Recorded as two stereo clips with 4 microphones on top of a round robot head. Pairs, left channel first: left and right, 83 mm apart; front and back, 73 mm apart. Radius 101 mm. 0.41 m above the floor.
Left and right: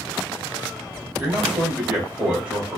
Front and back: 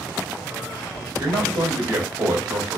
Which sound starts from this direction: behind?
A man speaking, at 1.2 s.